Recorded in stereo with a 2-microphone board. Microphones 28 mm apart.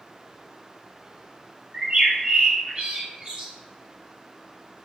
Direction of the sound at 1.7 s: 40° right (ahead or behind).